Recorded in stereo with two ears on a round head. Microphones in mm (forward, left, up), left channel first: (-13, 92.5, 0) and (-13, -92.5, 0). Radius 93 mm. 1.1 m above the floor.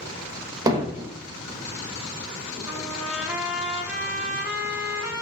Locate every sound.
0.7 s hammering: 20° right (ahead or behind), 1.2 m
2.6 s a trumpet: 10° right (ahead or behind), 1.4 m